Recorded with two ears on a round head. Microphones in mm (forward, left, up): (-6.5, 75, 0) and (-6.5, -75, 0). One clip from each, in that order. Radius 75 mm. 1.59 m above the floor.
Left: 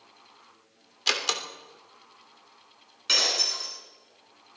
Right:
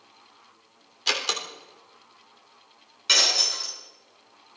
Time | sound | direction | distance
1.1 | a door slam | 10° left (ahead or behind) | 3.5 m
3.1 | breaking glass | 20° right (ahead or behind) | 9.5 m